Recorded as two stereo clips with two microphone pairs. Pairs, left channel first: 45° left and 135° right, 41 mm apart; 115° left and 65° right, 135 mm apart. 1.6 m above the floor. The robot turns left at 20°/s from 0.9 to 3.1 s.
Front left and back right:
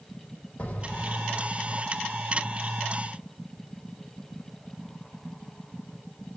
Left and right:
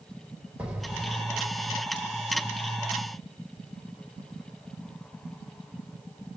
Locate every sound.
0.6 s an explosion: 15° left, 1.3 m; by 1.8 s 5° right, 1.3 m